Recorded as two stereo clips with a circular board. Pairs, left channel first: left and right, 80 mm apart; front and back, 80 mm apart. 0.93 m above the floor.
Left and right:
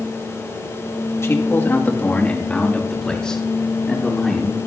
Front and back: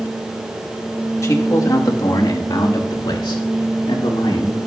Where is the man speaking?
45° left, 1.6 m; by 4.6 s straight ahead, 3.5 m.